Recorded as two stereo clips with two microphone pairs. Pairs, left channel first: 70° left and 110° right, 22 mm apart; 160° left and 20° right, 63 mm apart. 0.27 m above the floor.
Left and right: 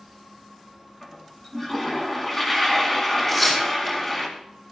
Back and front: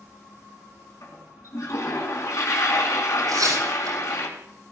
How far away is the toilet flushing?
About 3 m.